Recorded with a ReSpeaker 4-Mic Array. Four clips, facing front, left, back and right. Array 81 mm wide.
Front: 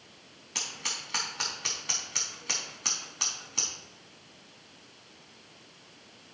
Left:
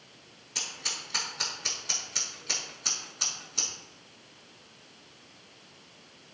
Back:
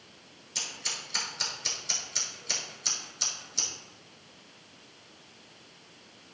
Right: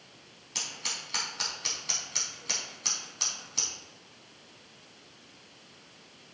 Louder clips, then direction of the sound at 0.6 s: Even, front 2 dB; 15° right.